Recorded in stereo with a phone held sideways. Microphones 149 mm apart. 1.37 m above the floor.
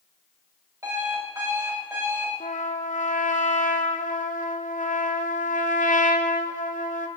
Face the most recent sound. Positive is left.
turn(degrees=60)  # may be behind; listen again after turning